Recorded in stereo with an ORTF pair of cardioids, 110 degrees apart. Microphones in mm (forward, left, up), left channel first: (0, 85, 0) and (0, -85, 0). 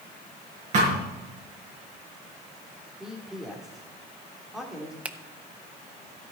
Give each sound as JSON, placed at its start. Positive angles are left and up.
{"t": 0.7, "sound": "a thud", "azimuth_deg": -45, "distance_m": 5.5}
{"t": 3.0, "sound": "a man speaking", "azimuth_deg": 0, "distance_m": 3.0}
{"t": 5.0, "sound": "a finger snap", "azimuth_deg": -10, "distance_m": 0.8}